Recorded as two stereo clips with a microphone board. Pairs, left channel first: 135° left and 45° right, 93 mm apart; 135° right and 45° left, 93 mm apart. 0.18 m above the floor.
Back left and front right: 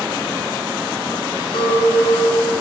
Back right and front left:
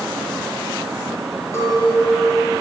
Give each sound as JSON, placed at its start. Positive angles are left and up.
{"t": 1.5, "sound": "a clink", "azimuth_deg": 165, "distance_m": 4.5}